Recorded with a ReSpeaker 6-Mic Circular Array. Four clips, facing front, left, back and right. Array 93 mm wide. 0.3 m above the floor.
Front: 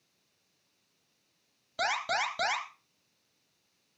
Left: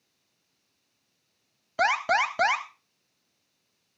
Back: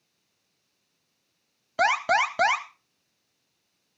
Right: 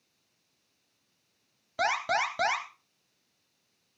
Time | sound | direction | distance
1.8 | an alarm | 150° left | 1.3 m